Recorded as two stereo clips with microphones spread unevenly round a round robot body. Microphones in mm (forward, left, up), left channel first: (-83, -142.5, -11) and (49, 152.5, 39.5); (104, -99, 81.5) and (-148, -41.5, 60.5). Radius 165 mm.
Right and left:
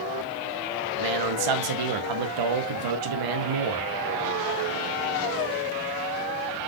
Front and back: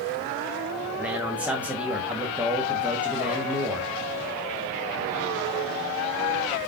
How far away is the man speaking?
About 0.9 m.